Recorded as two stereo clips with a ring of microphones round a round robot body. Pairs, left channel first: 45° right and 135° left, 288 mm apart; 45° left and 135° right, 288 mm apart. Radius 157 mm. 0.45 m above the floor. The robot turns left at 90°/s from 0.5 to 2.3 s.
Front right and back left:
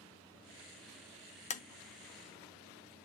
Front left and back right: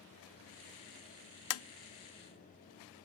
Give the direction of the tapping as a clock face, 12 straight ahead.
11 o'clock.